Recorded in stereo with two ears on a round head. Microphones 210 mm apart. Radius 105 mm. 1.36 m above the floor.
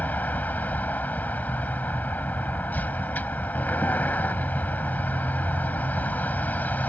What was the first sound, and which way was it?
A vehicle, 5° left (ahead or behind).